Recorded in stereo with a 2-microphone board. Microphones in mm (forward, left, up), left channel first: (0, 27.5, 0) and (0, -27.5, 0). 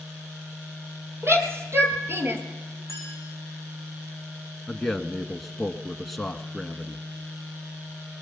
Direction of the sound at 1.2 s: 50° right (ahead or behind).